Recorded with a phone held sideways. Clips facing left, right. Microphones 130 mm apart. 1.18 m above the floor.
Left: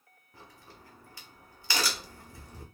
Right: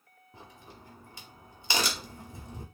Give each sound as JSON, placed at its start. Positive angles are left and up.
{"t": 0.3, "sound": "a crack", "side_deg": -20, "distance_m": 1.0}